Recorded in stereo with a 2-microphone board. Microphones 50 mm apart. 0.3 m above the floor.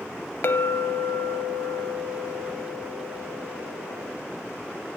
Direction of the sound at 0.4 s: 50° left (ahead or behind).